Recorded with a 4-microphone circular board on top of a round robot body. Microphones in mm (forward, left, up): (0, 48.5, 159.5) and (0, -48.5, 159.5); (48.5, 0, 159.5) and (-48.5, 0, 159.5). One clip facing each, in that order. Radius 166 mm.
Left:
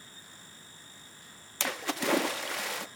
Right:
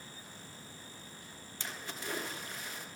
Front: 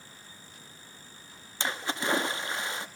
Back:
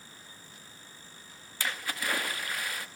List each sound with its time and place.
1.6 s a splash: 70° left, 0.8 m